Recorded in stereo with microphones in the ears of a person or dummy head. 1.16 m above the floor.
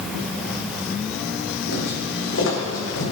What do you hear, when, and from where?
1.7 s footsteps: 80° left, 7 m